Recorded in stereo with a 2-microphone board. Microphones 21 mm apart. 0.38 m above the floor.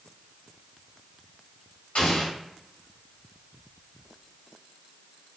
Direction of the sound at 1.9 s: 60° left (ahead or behind).